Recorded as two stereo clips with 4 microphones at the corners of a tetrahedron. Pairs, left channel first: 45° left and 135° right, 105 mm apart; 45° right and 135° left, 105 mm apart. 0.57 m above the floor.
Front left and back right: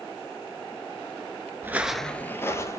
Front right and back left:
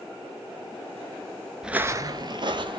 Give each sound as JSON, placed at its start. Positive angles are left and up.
{"t": 1.6, "sound": "footsteps", "azimuth_deg": -145, "distance_m": 0.5}